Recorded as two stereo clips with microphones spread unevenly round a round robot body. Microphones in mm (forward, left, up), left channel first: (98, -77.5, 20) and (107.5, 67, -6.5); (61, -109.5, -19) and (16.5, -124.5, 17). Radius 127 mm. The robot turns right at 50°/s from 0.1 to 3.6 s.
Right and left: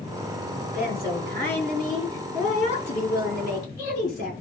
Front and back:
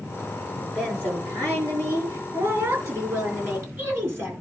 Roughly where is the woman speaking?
Left.